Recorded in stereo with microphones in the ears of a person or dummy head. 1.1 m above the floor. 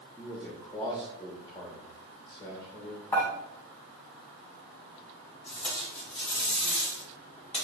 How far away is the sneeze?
No sneeze in this recording.